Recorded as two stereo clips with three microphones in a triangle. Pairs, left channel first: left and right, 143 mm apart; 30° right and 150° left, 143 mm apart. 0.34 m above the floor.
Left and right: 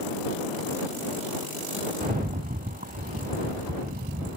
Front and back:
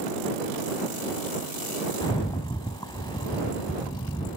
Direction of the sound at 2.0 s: 90° right.